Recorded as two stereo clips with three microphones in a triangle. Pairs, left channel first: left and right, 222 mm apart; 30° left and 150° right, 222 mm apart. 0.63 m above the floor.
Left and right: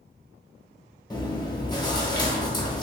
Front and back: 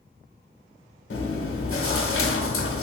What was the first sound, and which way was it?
Chewing, 20° left.